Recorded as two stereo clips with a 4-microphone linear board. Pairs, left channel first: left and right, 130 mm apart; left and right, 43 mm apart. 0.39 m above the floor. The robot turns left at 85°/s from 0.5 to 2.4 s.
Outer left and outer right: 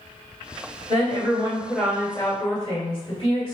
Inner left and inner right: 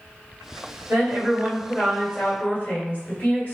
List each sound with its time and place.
0.9 s a woman speaking: 100° right, 1.7 m; by 3.5 s 130° left, 1.7 m